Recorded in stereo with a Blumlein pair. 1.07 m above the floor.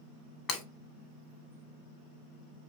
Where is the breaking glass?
25° left, 1.1 m.